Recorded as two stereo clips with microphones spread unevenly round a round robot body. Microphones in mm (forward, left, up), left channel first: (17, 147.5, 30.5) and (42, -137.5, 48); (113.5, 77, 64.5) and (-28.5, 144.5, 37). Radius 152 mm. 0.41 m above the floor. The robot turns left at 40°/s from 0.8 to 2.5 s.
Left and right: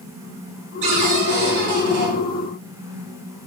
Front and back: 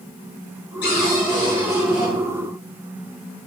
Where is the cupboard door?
55° right, 2.5 m; by 2.1 s 105° right, 2.5 m.